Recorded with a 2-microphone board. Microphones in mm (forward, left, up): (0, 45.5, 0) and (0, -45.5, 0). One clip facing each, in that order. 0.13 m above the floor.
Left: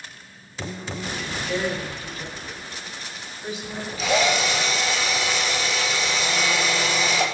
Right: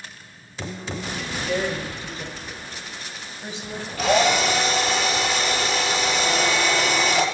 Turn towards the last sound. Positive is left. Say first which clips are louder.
# right 3 dB
turn(degrees=-70)  # may be behind; listen again after turning